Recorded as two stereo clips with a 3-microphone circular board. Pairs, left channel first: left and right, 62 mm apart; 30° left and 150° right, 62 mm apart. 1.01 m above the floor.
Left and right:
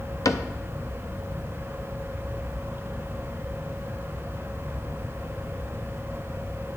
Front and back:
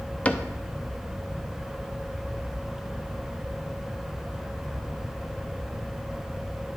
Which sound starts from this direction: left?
A cupboard door, at 0.2 s.